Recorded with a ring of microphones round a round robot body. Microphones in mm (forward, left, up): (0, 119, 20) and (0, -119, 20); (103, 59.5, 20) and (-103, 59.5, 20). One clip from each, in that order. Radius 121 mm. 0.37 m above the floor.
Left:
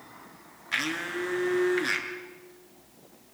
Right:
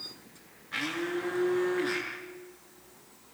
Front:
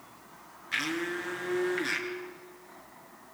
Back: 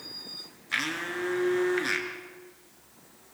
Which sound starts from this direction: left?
A blender, at 0.7 s.